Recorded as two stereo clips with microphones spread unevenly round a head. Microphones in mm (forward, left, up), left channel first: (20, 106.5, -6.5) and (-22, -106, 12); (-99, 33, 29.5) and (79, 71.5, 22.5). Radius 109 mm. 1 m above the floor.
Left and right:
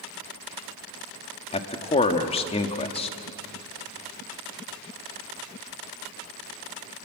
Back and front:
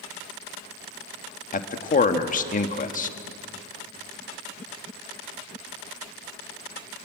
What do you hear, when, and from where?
1.5 s a man speaking: 145° left, 1.5 m